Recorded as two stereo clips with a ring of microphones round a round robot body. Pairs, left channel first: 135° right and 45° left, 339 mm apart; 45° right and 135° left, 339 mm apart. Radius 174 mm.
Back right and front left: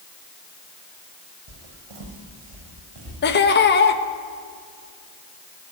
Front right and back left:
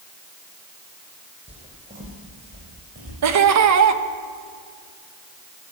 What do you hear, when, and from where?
1.5 s footsteps: 65° left, 3 m; by 3.1 s 75° left, 5 m
3.2 s laughter: 170° left, 1.1 m